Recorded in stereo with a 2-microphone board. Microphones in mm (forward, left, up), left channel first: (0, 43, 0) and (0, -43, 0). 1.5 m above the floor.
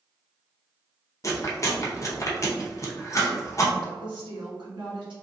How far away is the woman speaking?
About 1.4 m.